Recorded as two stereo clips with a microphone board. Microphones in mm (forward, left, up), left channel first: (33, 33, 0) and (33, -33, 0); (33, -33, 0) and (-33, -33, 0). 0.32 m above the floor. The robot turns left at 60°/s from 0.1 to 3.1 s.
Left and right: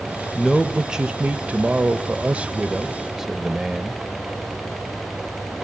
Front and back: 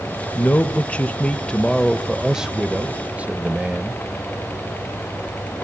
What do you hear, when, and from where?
0.3 s a man speaking: 5° left, 0.9 m; by 4.0 s 160° right, 0.9 m